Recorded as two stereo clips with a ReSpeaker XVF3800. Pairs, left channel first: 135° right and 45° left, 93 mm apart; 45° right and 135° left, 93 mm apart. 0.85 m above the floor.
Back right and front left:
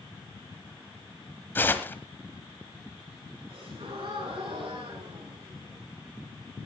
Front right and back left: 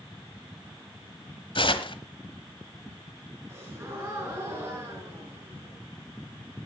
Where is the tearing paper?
65° right, 1.2 m.